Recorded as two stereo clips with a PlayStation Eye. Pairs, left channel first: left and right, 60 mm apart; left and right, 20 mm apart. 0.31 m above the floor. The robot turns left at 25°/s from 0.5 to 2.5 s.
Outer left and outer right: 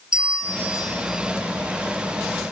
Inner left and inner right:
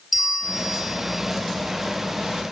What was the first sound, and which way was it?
A bell, 15° right (ahead or behind).